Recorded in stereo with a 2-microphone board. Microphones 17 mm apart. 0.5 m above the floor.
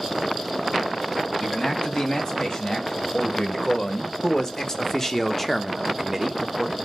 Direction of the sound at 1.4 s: 40° left (ahead or behind).